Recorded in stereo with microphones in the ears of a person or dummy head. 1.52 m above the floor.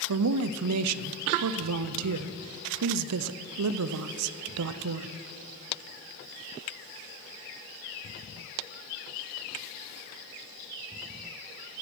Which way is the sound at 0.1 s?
80° right.